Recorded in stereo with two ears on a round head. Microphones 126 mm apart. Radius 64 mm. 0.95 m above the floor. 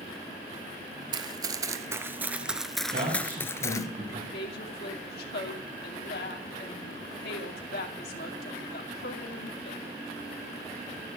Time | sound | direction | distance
1.1 | running footsteps | 30° right (ahead or behind) | 1.2 m
2.9 | a man speaking | 50° right (ahead or behind) | 5 m
4.3 | a woman speaking | 75° left (ahead or behind) | 2.5 m